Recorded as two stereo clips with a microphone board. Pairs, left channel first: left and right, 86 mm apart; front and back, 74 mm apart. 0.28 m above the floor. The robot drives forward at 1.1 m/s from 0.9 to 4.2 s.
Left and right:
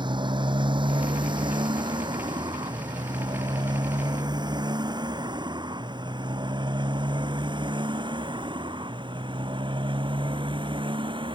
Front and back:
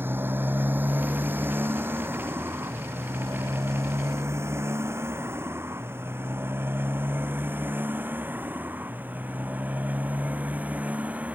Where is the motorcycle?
120° right; by 11.3 s 110° right.